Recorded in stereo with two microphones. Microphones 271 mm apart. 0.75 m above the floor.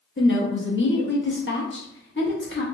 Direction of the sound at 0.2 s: 45° left (ahead or behind).